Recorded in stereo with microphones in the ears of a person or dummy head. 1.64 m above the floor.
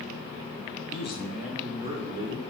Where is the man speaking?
50° left (ahead or behind), 0.5 m; by 2.4 s 35° right (ahead or behind), 1.5 m.